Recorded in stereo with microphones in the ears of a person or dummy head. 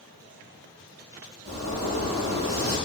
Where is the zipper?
30° right (ahead or behind), 1.3 m.